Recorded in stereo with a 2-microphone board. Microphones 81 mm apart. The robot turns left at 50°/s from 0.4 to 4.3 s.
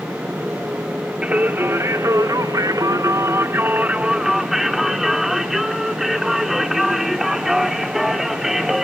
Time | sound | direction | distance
1.2 | singing | 20° right | 1.4 m